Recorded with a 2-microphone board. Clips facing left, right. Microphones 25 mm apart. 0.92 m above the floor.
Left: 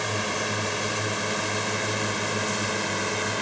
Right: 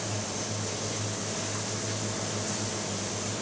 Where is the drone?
70° left (ahead or behind).